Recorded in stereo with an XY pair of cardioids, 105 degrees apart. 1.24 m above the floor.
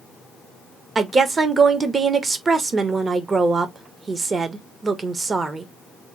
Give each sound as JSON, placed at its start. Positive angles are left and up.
{"t": 0.9, "sound": "a woman speaking", "azimuth_deg": -35, "distance_m": 1.1}